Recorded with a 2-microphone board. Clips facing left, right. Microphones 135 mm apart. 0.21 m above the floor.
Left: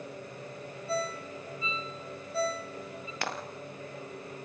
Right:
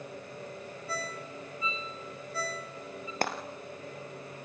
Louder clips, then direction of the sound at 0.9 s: Left 6 dB; 30° left (ahead or behind).